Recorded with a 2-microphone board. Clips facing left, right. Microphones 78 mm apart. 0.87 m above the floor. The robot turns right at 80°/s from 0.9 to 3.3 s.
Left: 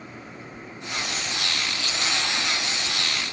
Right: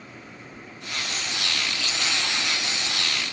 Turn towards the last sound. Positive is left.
No sound to turn to.